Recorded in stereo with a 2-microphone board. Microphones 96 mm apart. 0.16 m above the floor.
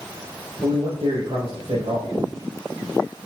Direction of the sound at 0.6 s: 70° right (ahead or behind).